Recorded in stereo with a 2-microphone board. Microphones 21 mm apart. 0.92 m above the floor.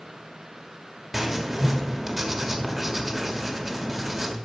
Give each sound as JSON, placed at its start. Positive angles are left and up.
{"t": 1.1, "sound": "writing", "side_deg": -20, "distance_m": 1.2}